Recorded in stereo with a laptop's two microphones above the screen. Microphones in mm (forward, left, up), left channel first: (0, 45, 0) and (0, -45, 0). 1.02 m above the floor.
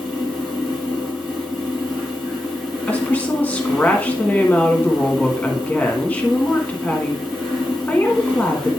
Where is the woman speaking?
15° left (ahead or behind), 1.6 m.